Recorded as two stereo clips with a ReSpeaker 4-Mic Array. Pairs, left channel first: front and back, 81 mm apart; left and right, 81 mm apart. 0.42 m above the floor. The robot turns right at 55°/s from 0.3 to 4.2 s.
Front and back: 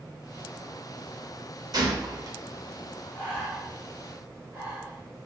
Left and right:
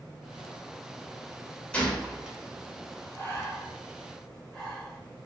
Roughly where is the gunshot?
Behind.